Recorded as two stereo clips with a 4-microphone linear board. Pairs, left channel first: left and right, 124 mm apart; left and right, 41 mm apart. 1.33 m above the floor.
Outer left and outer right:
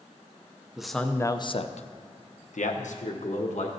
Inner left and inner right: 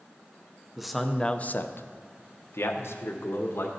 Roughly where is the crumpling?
I don't hear crumpling.